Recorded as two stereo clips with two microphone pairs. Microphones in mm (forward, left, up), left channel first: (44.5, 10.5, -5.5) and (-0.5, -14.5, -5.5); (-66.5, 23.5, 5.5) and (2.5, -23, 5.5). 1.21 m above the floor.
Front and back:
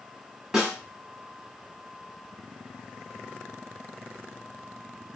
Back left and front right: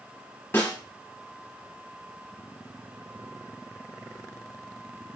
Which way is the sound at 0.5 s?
140° left.